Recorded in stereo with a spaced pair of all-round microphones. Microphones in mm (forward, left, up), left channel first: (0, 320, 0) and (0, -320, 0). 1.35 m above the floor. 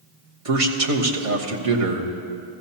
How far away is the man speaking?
About 1.3 m.